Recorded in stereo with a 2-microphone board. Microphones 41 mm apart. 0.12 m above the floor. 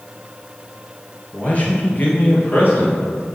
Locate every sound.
1.3 s a man speaking: 35° left (ahead or behind), 1.9 m; by 3.0 s 55° left (ahead or behind), 2.5 m